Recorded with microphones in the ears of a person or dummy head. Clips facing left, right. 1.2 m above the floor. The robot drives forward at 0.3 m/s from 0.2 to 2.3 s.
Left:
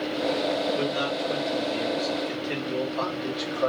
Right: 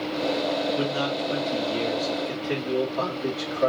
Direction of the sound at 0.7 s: 50° right (ahead or behind).